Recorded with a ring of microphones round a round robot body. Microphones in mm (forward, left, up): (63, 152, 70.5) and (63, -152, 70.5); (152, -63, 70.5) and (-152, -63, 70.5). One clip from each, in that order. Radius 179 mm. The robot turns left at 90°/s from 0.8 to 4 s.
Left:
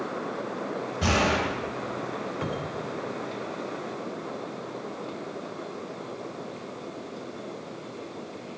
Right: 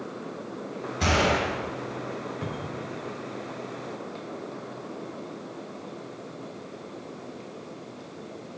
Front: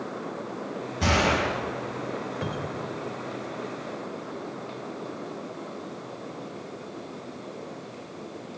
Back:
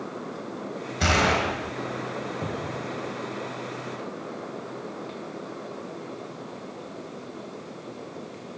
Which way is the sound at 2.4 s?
40° left.